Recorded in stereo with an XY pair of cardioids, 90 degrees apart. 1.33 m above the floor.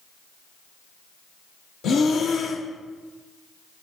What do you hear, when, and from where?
1.8 s breathing: 70° left, 0.7 m